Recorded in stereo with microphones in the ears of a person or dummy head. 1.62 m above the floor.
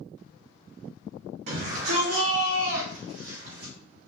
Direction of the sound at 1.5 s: 75° right (ahead or behind).